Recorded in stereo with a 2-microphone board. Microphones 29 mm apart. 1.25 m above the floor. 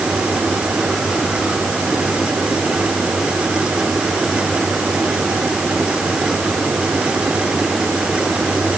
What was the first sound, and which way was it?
Only background noise.